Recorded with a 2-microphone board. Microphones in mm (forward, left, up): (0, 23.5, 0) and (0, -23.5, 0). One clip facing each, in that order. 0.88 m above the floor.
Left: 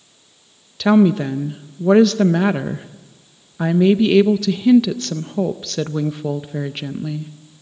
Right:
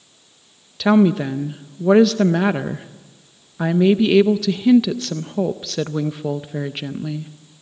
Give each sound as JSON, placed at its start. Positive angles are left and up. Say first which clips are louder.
{"t": 0.8, "sound": "a woman speaking", "louder": "left 1 dB", "side_deg": -5, "distance_m": 0.5}